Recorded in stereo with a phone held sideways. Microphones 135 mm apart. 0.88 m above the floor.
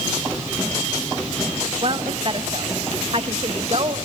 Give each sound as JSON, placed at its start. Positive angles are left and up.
{"t": 1.8, "sound": "a woman speaking", "side_deg": -40, "distance_m": 1.1}